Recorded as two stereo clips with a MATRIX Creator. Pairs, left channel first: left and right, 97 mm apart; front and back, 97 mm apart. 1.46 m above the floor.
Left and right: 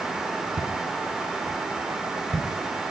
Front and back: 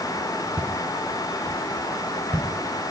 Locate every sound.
0.6 s footsteps: 105° right, 5 m; by 2.9 s 120° right, 7 m